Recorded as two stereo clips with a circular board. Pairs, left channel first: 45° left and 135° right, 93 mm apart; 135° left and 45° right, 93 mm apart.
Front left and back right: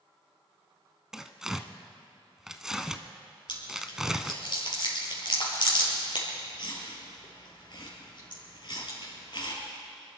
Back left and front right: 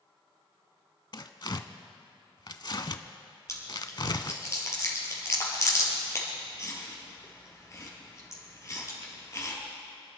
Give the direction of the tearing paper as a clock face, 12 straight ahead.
7 o'clock.